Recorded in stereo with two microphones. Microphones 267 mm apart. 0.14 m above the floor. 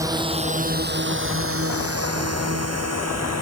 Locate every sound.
0.0 s a drone: 15° right (ahead or behind); by 3.4 s 85° right